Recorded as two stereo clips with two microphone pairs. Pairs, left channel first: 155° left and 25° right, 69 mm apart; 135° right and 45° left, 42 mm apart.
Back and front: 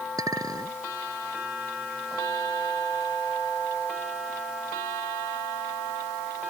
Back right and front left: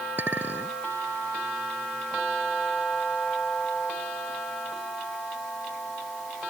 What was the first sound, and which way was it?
A clink, 5° left.